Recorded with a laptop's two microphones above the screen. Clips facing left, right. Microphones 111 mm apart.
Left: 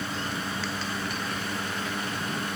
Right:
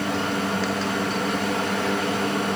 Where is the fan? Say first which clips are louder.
Right 8 dB; 70° right (ahead or behind), 0.9 m.